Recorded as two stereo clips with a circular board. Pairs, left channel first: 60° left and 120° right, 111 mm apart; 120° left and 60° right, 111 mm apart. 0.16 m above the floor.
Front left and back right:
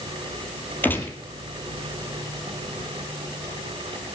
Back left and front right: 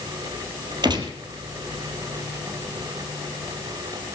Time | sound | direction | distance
0.8 | a gunshot | 15° right | 2.0 m